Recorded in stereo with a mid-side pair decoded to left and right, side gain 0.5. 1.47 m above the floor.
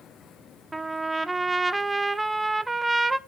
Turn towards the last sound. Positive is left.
turn(degrees=-15)